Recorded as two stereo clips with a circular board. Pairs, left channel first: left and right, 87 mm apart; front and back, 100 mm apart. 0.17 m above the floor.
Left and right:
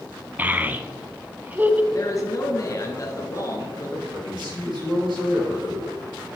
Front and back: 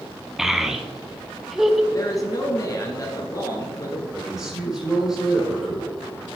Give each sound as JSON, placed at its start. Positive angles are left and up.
{"t": 0.4, "sound": "a child speaking", "azimuth_deg": -100, "distance_m": 0.6}
{"t": 1.9, "sound": "a man speaking", "azimuth_deg": 45, "distance_m": 1.7}
{"t": 4.1, "sound": "a man speaking", "azimuth_deg": -95, "distance_m": 4.0}